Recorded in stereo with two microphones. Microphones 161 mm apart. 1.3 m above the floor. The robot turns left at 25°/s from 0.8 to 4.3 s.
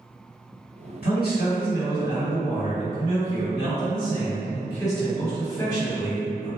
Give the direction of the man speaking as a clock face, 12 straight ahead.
9 o'clock.